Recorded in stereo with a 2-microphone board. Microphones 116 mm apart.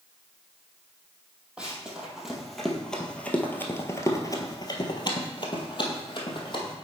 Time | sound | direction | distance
1.6 | running footsteps | 10° right (ahead or behind) | 1.9 m